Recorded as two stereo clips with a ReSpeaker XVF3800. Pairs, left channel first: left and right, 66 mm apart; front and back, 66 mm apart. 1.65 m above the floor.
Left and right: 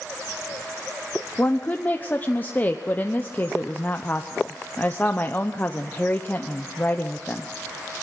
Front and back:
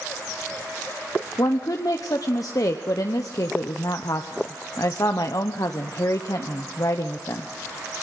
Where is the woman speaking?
25° left, 0.9 m.